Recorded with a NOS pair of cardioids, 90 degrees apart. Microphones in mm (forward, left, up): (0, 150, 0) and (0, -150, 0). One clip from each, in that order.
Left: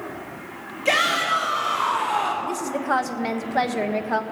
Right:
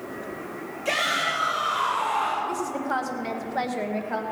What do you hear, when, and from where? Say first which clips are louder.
0.8 s a shout: left 4 dB; 30° left, 2.5 m; by 2.3 s 25° left, 4 m
2.4 s a woman speaking: left 2 dB; 30° left, 1.3 m